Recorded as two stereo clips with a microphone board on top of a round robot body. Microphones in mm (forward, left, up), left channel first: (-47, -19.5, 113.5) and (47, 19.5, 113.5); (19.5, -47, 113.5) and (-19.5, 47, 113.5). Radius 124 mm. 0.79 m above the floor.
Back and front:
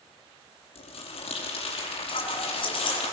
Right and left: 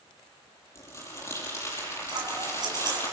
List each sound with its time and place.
0.8 s crumpling: 130° right, 5.5 m
2.1 s scissors: 165° left, 4.5 m